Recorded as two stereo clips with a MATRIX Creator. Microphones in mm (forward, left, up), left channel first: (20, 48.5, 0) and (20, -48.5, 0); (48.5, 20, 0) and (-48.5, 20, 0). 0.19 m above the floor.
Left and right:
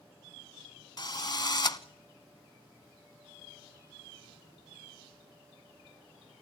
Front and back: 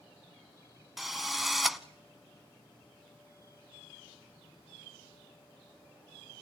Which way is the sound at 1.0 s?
90° left.